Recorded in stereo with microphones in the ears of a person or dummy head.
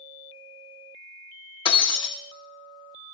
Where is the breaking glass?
15° left (ahead or behind), 0.9 m.